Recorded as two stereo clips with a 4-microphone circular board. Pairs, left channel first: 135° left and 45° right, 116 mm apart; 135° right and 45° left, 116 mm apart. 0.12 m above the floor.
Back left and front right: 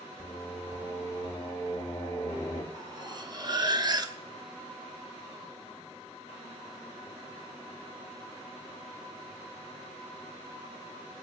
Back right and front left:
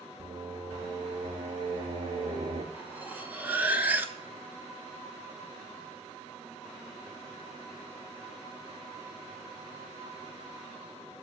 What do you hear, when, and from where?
0.2 s singing: 60° left, 2.5 m
2.7 s cutlery clinking: 20° right, 0.9 m